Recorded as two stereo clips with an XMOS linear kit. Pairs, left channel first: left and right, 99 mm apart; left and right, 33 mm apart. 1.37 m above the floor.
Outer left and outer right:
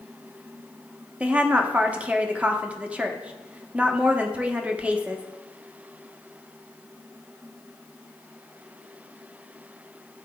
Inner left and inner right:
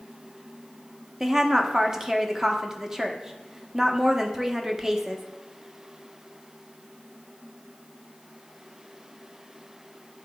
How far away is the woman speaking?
About 0.8 m.